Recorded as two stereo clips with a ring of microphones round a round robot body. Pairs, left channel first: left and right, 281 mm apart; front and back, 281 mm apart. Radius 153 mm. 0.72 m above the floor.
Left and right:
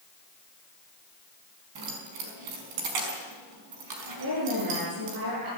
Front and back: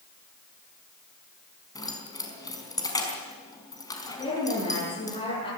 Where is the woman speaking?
70° right, 9.5 m.